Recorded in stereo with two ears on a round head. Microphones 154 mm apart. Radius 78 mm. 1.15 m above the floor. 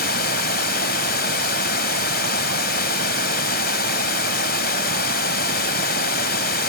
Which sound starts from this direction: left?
Running water, at 0.0 s.